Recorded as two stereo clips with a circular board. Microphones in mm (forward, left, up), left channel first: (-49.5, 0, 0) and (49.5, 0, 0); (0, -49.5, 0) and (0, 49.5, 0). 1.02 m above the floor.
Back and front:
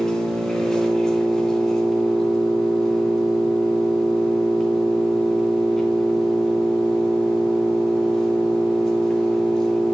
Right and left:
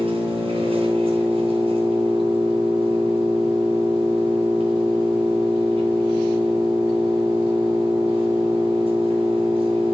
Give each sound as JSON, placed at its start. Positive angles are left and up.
{"t": 0.0, "sound": "an engine running", "azimuth_deg": 95, "distance_m": 3.0}